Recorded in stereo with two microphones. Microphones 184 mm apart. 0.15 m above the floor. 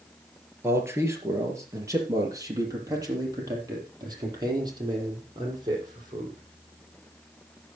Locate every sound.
0.6 s a man speaking: 15° right (ahead or behind), 3.5 m; by 6.4 s 25° right (ahead or behind), 7 m